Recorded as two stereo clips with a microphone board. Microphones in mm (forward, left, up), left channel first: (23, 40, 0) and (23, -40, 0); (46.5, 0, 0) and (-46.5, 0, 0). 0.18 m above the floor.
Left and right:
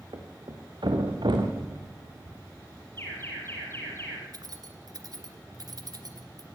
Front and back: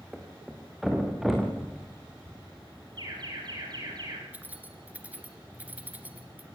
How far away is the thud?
About 4 m.